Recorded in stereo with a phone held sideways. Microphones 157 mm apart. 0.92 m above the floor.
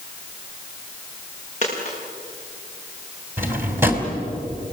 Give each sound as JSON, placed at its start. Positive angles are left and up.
{"t": 1.6, "sound": "a dropped coin", "side_deg": 50, "distance_m": 6.5}
{"t": 3.4, "sound": "a drawer", "side_deg": -15, "distance_m": 3.0}